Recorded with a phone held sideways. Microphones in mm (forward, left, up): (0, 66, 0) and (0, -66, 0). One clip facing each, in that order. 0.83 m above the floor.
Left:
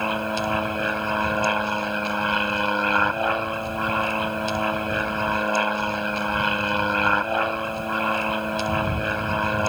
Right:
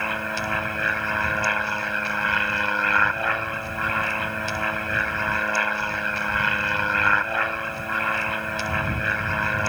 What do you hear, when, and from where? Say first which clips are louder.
0.0 s an aircraft: left 4 dB; 20° left (ahead or behind)